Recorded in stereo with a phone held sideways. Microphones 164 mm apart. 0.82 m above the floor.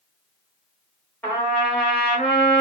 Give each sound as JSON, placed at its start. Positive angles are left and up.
{"t": 1.2, "sound": "a trumpet", "side_deg": 10, "distance_m": 1.3}